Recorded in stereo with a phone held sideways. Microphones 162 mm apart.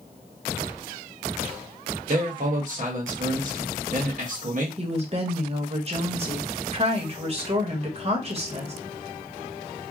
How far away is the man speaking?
About 1.3 m.